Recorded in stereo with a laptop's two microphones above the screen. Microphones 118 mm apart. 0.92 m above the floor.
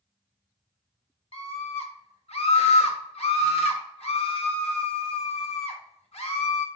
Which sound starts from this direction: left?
A scream, at 1.3 s.